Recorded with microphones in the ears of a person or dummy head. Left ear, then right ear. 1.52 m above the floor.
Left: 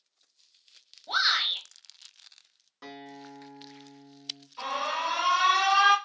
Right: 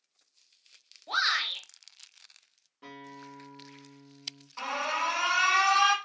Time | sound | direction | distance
1.1 | a shout | 5° right (ahead or behind) | 0.7 m
2.8 | a guitar | 55° left (ahead or behind) | 0.6 m
4.6 | an alarm | 40° right (ahead or behind) | 0.8 m